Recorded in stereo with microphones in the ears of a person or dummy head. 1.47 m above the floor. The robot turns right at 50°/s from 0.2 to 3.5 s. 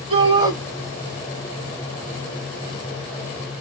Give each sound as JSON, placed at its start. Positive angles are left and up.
{"t": 0.1, "sound": "a shout", "side_deg": -35, "distance_m": 3.0}